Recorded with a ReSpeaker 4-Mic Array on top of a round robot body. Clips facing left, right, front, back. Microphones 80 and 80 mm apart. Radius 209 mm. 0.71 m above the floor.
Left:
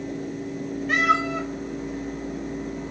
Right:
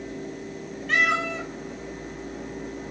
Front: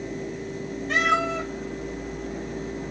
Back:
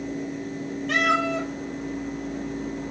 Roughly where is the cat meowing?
Behind.